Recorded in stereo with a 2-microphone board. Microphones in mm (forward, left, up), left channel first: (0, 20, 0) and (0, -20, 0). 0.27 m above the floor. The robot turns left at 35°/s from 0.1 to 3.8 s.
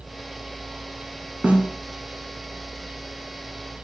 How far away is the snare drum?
About 1.7 m.